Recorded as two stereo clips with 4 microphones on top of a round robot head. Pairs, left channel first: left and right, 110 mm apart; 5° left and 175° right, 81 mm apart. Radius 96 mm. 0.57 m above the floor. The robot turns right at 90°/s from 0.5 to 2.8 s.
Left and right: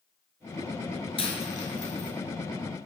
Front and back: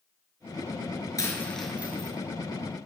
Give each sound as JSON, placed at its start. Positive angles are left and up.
{"t": 1.2, "sound": "a dropped coin", "azimuth_deg": 55, "distance_m": 4.5}